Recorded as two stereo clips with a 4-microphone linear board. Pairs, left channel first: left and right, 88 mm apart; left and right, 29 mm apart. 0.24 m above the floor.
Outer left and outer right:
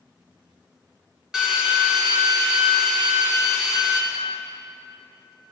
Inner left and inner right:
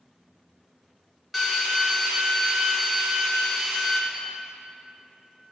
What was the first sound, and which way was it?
A drill, 5° right (ahead or behind).